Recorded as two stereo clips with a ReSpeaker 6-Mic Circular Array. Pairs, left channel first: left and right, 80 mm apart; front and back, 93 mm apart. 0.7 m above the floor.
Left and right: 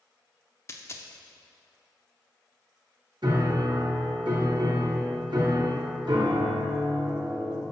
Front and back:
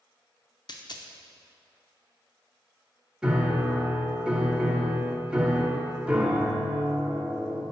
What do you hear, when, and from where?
0.7 s a dropped coin: 40° left, 0.5 m
3.2 s a piano: 100° right, 0.8 m